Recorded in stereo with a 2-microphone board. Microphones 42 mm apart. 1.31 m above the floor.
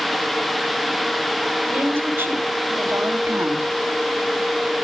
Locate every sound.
1.7 s a woman speaking: 50° right (ahead or behind), 3.5 m; by 3.7 s 70° right (ahead or behind), 2 m